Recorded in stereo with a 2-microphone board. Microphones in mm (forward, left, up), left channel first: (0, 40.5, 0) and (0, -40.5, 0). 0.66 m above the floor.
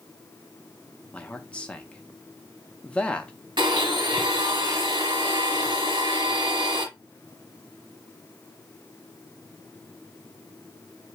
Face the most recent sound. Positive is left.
turn(degrees=-75)  # may be behind; listen again after turning